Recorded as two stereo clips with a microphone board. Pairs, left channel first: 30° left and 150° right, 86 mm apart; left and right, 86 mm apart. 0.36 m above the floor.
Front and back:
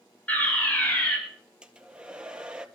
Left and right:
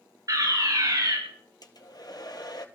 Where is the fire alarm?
45° right, 9 m.